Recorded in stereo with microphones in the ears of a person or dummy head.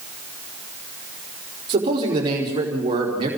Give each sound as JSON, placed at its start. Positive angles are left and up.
{"t": 1.7, "sound": "a man speaking", "side_deg": -30, "distance_m": 4.5}